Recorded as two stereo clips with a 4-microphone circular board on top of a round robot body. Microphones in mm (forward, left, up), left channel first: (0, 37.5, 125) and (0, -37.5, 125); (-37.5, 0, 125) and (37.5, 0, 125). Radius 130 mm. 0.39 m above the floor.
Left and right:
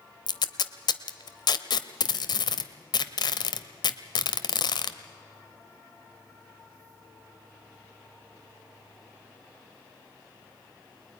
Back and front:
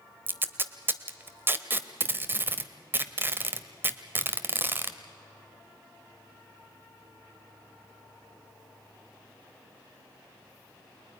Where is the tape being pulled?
65° left, 0.9 m.